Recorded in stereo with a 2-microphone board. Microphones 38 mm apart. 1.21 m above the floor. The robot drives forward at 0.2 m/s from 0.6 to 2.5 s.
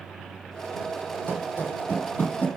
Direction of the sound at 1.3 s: 60° left (ahead or behind).